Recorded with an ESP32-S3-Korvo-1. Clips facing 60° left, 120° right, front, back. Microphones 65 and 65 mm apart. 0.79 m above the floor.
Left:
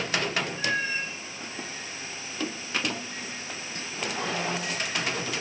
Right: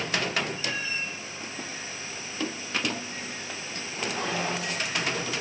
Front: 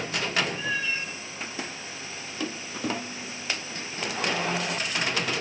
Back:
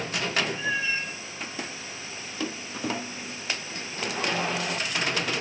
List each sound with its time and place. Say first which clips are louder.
0.5 s a cat meowing: left 4 dB, back 1 dB; 105° left, 2 m